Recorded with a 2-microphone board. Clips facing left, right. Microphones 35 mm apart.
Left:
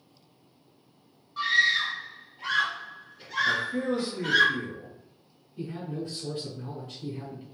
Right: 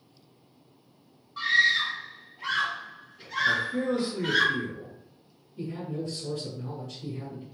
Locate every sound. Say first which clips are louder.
1.4 s a scream: right 1 dB; centre (ahead or behind), 1.6 m
3.4 s a man speaking: right 2 dB; 5° left (ahead or behind), 1.7 m
5.6 s a man speaking: right 1 dB; 25° left (ahead or behind), 1.5 m